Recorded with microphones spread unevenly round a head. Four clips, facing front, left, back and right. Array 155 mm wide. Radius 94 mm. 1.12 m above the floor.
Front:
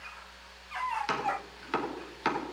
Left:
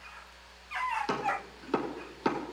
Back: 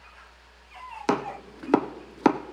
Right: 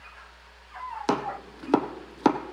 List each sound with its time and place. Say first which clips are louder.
1.1 s chopping: right 4 dB, back 5 dB; 150° right, 0.5 m